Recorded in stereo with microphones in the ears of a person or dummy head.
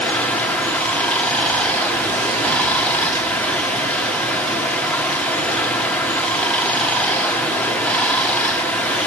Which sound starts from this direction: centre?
Running water, at 0.0 s.